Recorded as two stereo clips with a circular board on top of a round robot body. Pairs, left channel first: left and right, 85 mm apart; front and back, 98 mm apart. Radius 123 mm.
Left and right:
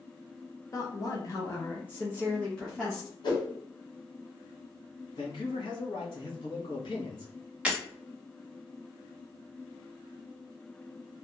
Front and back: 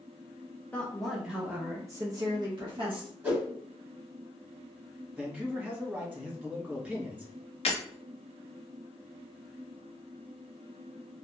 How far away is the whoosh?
About 1.9 m.